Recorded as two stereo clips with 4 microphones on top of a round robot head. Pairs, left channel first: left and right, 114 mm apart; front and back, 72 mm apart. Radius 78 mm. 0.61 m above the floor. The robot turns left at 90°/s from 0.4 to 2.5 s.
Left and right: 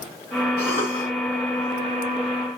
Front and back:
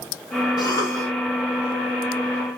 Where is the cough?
15° right, 4.5 m; by 1.1 s 60° right, 4.5 m.